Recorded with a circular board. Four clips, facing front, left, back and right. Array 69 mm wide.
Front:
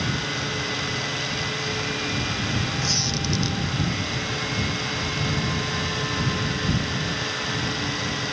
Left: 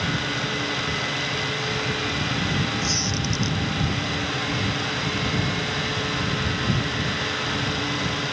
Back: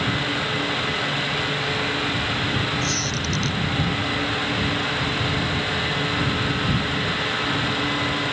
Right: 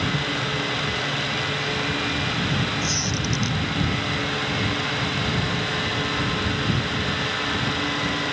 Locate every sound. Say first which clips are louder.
2.8 s a squeak: even, back 2 dB; 20° left